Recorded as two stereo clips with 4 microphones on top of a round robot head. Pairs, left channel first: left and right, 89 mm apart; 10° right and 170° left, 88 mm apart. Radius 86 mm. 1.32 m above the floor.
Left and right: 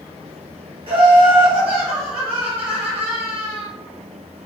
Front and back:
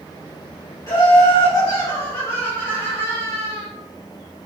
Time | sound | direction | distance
0.9 | laughter | 70° right | 3 m